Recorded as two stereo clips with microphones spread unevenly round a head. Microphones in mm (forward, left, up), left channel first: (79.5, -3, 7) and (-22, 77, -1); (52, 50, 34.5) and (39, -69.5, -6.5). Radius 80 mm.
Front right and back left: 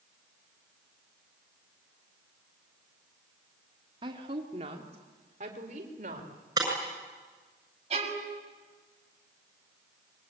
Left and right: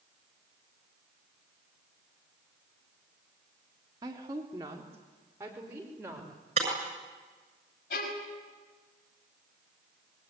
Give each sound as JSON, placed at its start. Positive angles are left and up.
{"t": 4.0, "sound": "a woman speaking", "azimuth_deg": -155, "distance_m": 2.5}
{"t": 6.6, "sound": "breaking glass", "azimuth_deg": -145, "distance_m": 7.0}
{"t": 7.9, "sound": "a violin", "azimuth_deg": 100, "distance_m": 6.0}